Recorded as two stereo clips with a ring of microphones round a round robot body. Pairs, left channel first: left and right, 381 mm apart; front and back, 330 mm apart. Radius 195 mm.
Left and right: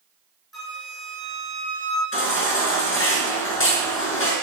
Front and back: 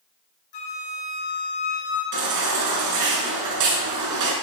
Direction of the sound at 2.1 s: 150° left.